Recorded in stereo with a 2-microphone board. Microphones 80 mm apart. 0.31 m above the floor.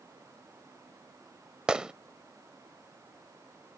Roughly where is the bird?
I don't hear a bird.